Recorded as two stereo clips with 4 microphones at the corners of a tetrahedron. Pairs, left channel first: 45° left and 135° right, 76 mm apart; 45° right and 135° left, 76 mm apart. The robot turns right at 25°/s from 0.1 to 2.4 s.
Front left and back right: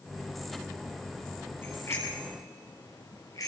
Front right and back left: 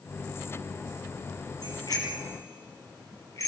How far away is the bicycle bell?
About 5.5 m.